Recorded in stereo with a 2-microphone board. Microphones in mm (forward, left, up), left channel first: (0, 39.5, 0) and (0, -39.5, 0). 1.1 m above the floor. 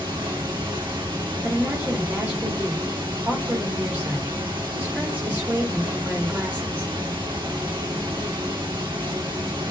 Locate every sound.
0.0 s running water: 85° right, 1.3 m
1.4 s a woman speaking: 20° right (ahead or behind), 1.4 m